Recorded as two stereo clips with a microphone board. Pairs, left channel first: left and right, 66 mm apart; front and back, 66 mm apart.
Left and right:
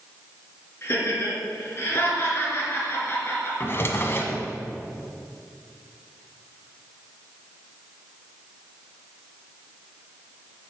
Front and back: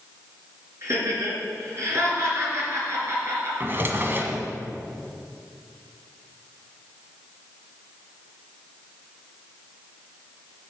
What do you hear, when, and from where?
0.8 s laughter: 140° left, 4 m
3.6 s a drawer: 135° left, 1.2 m